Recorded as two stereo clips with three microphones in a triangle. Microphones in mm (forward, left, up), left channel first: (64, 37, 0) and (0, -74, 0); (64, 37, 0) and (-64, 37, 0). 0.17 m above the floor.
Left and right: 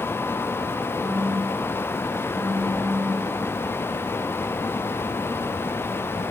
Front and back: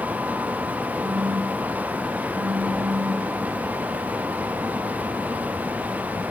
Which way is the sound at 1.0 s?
30° left.